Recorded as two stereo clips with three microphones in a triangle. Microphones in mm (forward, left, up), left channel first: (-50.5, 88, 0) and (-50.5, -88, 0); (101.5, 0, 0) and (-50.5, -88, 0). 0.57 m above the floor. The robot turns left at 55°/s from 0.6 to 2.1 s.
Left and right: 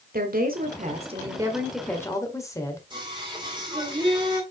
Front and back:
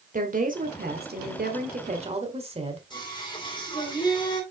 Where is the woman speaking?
115° right, 1.9 m; by 2.8 s 160° left, 1.9 m.